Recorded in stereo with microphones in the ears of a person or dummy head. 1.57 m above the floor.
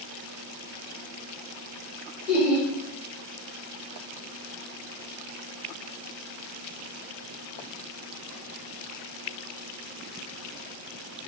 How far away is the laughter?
About 1.3 m.